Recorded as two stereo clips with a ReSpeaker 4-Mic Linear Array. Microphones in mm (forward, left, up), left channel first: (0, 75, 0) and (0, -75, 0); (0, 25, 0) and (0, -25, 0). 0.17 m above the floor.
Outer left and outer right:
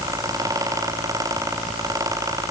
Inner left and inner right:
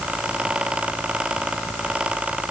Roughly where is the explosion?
No explosion in this recording.